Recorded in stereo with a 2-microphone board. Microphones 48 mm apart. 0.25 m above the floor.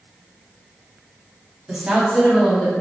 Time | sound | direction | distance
1.7 | a woman speaking | 25° right (ahead or behind) | 1.2 m